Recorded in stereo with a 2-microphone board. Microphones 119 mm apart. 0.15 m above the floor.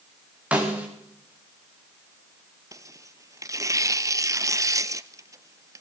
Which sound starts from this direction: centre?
A snare drum, at 0.5 s.